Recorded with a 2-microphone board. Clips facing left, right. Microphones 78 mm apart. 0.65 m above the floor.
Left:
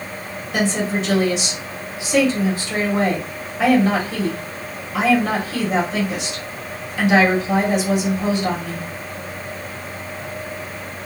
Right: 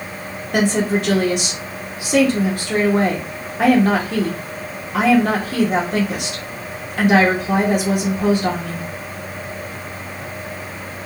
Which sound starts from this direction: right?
A woman speaking, at 0.5 s.